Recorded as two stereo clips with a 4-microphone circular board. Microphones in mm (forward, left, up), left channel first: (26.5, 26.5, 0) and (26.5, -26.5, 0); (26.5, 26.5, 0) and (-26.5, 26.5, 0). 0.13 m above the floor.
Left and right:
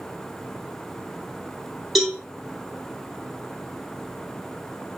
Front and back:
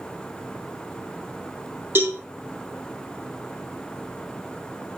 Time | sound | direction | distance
1.9 | a cowbell | 175° right | 1.0 m